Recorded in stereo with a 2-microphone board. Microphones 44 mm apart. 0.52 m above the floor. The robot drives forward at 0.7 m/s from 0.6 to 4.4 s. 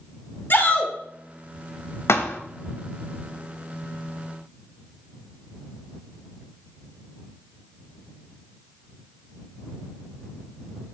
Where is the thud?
75° left (ahead or behind), 0.5 m; by 2.4 s 65° left (ahead or behind), 0.6 m.